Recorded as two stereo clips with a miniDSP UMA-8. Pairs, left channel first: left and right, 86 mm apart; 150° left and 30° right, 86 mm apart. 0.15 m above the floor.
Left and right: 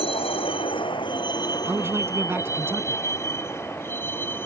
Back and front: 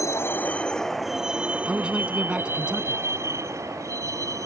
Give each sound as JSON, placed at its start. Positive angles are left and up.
{"t": 0.0, "sound": "a vehicle", "azimuth_deg": 95}
{"t": 1.6, "sound": "a man speaking", "azimuth_deg": -95}